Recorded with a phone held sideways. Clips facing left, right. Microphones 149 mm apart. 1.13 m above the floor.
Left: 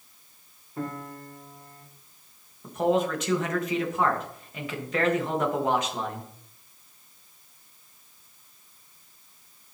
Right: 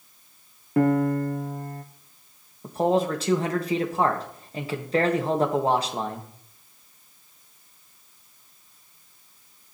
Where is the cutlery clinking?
I don't hear cutlery clinking.